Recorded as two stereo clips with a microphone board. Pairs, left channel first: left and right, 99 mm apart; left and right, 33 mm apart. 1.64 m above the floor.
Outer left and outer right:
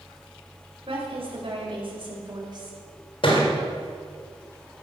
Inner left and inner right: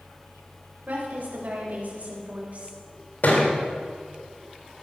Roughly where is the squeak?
I don't hear a squeak.